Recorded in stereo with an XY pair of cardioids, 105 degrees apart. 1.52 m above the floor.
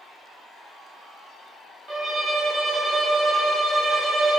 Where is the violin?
35° right, 2 m.